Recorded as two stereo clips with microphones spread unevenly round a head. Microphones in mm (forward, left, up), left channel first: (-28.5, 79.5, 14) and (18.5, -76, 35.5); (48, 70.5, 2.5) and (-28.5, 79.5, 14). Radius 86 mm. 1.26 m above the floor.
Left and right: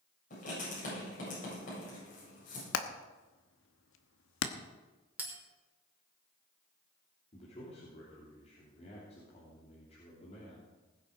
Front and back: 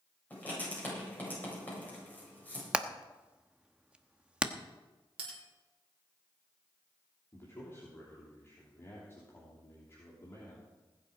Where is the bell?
155° right, 3 m.